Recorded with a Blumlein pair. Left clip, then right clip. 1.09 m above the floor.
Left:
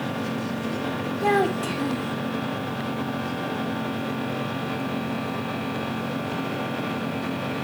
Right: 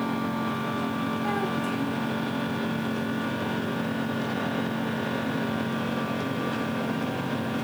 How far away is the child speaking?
About 1.5 m.